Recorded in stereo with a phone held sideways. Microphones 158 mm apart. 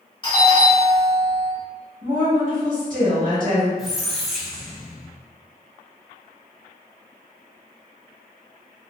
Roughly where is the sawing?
I don't hear sawing.